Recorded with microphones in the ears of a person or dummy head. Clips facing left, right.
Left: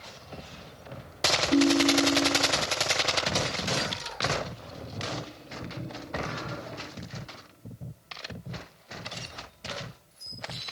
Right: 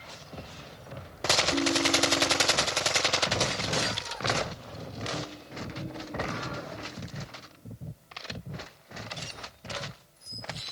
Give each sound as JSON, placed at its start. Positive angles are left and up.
{"t": 1.5, "sound": "a ringtone", "side_deg": 25, "distance_m": 1.4}